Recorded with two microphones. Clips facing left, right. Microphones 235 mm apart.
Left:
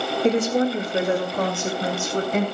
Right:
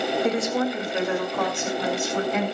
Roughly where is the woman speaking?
Left.